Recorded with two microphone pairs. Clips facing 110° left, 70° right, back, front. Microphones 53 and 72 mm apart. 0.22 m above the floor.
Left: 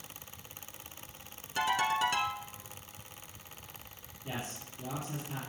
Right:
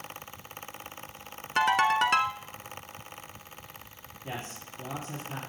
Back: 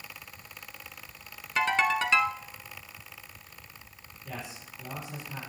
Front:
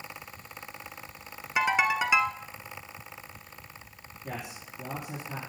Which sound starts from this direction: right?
A ringtone, at 1.6 s.